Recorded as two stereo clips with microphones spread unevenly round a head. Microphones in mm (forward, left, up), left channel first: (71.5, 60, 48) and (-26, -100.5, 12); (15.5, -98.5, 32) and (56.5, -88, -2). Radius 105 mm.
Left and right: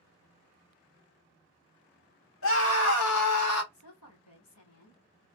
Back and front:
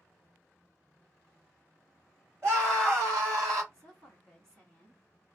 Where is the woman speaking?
75° left, 1.9 m.